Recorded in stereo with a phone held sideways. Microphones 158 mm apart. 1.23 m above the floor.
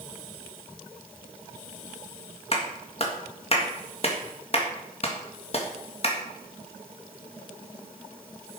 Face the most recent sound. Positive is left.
turn(degrees=45)  # may be behind; listen again after turning